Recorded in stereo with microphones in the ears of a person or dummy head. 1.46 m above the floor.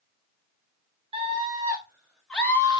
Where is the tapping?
No tapping in this recording.